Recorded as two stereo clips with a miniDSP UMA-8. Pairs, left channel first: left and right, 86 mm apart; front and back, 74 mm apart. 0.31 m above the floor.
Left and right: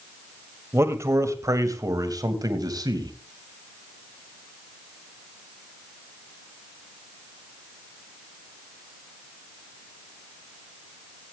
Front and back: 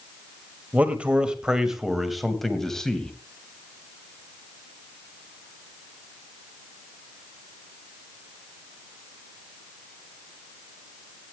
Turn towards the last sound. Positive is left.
turn(degrees=-75)